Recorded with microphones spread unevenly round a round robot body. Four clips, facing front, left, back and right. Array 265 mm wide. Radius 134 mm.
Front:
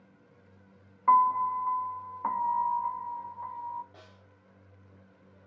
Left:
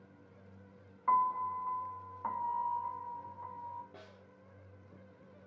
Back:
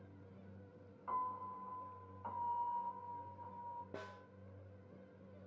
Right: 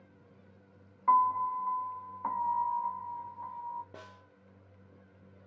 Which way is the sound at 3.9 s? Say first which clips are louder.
Right 4 dB, back 5 dB; 155° right.